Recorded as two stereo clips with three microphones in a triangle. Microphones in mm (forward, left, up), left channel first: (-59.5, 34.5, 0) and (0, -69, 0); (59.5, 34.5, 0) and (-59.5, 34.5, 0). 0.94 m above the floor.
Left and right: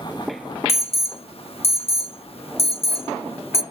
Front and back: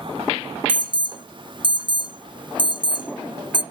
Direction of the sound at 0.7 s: 140° left.